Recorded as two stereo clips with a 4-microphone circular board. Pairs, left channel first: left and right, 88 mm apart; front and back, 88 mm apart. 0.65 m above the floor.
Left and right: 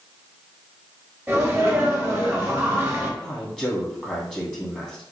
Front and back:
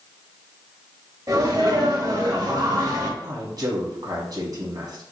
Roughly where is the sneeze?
Behind.